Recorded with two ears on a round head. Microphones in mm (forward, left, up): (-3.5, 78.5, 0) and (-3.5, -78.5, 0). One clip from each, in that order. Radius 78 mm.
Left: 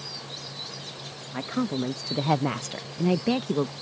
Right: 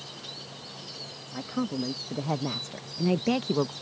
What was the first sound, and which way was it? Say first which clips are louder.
A woman speaking: left 3 dB; 75° left (ahead or behind).